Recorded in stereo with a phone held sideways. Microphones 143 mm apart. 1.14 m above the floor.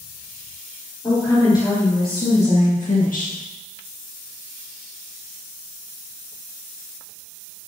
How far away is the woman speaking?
About 4 m.